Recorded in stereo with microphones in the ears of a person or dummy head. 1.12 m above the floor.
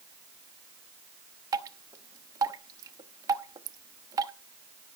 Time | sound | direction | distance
1.5 | dripping | 20° right (ahead or behind) | 0.7 m